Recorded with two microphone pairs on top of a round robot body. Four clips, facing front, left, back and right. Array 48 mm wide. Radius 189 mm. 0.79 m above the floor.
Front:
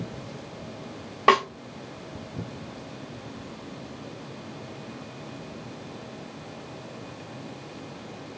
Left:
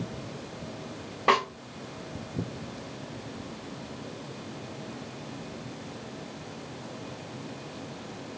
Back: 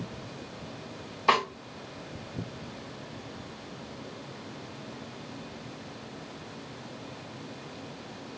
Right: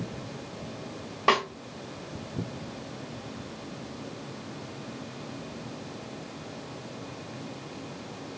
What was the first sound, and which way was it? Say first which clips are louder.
A snare drum: even, front 5 dB; straight ahead.